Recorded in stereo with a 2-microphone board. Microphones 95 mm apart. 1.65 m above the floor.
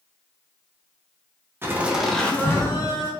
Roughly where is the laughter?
Right.